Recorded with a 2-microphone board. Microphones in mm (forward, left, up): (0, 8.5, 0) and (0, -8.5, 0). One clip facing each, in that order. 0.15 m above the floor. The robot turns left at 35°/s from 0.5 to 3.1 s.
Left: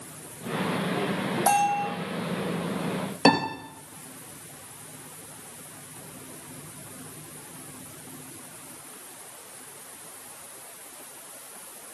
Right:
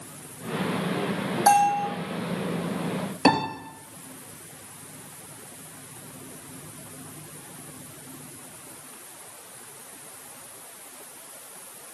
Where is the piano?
40° left (ahead or behind), 3 m.